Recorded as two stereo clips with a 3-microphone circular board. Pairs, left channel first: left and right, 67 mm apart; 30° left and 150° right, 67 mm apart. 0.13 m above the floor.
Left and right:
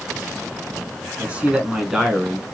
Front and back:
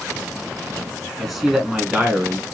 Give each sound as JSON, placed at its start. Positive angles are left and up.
{"t": 1.2, "sound": "a man speaking", "azimuth_deg": -60, "distance_m": 1.2}